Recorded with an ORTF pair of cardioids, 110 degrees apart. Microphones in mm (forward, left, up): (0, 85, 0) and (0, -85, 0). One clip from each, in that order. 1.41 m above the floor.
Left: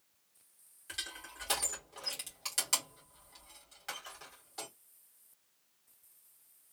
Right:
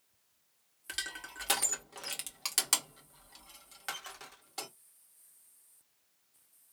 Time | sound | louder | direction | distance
0.9 | crushing | right 3 dB | 45° right | 1.4 m